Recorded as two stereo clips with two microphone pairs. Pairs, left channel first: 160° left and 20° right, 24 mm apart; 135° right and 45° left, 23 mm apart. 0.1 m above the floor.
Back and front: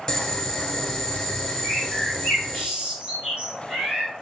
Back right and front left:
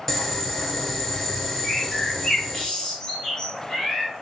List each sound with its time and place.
0.1 s boiling: 155° left, 0.6 m
1.6 s a bird: 65° right, 1.3 m